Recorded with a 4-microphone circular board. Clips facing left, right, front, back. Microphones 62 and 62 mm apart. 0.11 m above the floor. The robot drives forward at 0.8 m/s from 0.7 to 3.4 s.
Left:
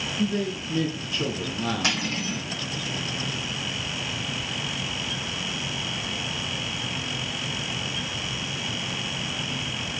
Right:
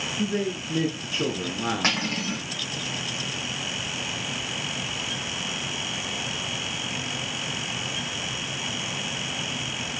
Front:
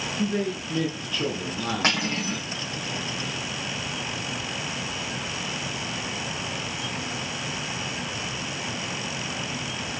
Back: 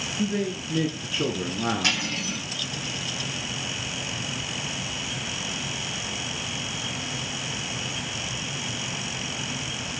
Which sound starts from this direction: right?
A man speaking, at 0.2 s.